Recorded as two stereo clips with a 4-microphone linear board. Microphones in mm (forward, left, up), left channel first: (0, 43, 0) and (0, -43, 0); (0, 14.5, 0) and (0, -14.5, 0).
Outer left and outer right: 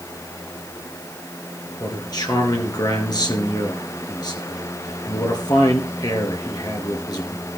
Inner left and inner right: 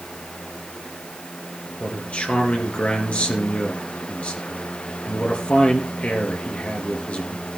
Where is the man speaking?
50° left (ahead or behind), 4 m.